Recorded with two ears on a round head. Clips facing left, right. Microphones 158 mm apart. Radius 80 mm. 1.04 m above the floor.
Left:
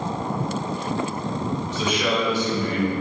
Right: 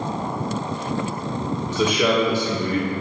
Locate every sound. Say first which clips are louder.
1.7 s a man speaking: right 6 dB; 60° right (ahead or behind), 2.5 m; by 2.9 s 75° right (ahead or behind), 1.8 m